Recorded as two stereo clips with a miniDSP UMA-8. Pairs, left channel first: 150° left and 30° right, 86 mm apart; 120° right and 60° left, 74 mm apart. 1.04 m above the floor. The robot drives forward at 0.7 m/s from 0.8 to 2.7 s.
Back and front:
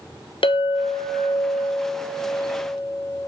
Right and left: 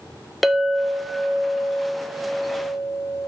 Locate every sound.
0.4 s a clink: 150° left, 0.8 m; by 3.3 s 170° left, 2 m